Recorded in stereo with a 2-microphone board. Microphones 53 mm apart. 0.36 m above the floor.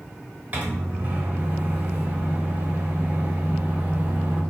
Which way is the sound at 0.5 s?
35° right (ahead or behind).